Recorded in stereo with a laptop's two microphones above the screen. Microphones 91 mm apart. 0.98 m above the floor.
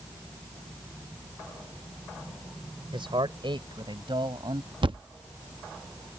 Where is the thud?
60° right (ahead or behind).